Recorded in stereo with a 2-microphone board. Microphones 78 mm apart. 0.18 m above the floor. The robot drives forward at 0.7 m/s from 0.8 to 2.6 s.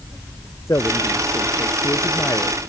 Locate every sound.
0.7 s a man speaking: 40° left (ahead or behind); by 2.6 s 45° left (ahead or behind)